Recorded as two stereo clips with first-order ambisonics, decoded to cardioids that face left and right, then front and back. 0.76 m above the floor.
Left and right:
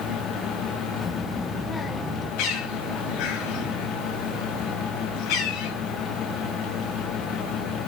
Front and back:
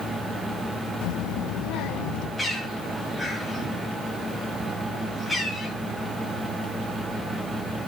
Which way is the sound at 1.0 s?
15° left.